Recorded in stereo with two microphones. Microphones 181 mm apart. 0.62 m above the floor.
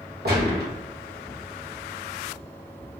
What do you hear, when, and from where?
0.2 s a gunshot: 65° right (ahead or behind), 1.1 m